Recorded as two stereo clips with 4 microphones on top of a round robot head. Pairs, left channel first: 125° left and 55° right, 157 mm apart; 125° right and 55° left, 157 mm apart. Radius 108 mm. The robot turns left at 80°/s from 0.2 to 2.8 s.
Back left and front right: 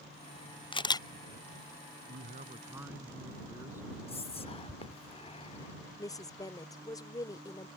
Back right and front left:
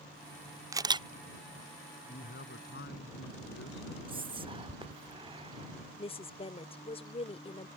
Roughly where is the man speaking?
Right.